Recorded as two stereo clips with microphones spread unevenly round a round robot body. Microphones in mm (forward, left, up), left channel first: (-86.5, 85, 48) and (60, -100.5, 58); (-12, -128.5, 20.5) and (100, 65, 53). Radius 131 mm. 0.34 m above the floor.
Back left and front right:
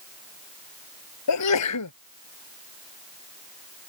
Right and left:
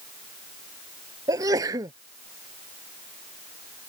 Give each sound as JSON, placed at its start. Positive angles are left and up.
{"t": 1.3, "sound": "a sneeze", "azimuth_deg": 140}